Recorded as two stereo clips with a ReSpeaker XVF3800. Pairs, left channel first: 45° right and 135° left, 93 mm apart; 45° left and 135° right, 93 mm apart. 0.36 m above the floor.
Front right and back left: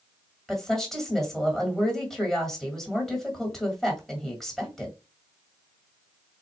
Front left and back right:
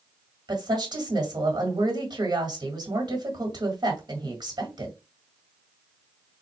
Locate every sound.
0.5 s a woman speaking: 130° right, 1.9 m